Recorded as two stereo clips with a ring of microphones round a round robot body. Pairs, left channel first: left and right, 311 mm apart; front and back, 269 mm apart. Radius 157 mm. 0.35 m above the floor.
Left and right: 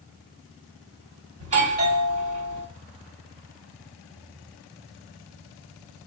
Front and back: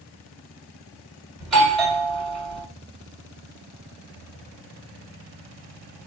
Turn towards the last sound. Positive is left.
turn(degrees=-85)